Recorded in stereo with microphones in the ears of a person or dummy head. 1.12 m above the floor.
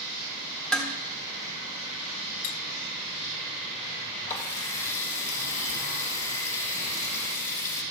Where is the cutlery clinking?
50° left (ahead or behind), 0.7 m.